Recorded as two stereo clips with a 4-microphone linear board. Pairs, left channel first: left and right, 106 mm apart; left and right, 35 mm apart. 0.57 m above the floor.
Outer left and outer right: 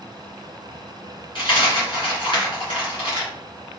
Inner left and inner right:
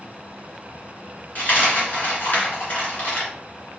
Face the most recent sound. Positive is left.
turn(degrees=60)  # may be behind; listen again after turning